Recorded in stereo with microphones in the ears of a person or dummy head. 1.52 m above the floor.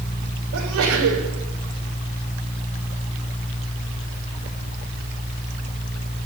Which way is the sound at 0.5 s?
85° right.